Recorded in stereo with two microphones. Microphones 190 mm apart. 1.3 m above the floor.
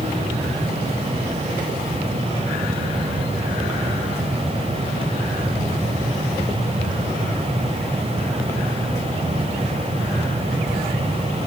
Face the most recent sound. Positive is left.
No sound to turn to.